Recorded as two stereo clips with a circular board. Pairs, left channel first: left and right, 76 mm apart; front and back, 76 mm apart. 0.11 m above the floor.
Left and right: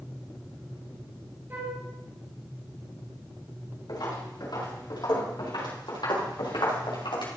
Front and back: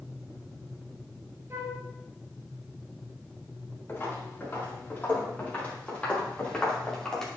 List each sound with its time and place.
1.5 s a flute: 140° right, 2.5 m
3.9 s footsteps: 65° left, 5.5 m; by 7.3 s 85° left, 4 m